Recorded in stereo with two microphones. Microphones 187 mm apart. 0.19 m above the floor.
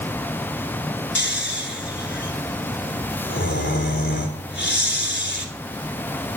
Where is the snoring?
70° left (ahead or behind), 1.3 m.